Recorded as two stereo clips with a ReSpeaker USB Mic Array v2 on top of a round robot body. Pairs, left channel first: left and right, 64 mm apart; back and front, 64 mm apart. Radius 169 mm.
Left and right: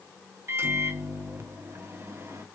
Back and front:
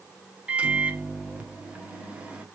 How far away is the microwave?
About 1.2 m.